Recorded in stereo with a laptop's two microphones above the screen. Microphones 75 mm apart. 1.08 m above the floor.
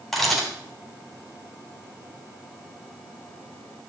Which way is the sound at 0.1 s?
Centre (ahead or behind).